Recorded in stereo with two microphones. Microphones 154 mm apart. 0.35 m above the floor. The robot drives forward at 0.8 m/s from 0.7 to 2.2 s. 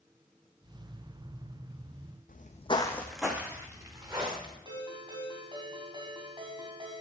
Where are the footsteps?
70° left (ahead or behind), 1.0 m; by 4.5 s 30° right (ahead or behind), 3 m.